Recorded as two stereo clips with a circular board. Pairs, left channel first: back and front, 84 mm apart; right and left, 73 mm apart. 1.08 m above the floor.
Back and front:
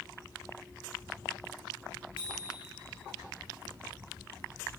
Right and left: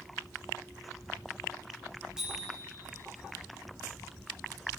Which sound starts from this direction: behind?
A bicycle bell, at 2.2 s.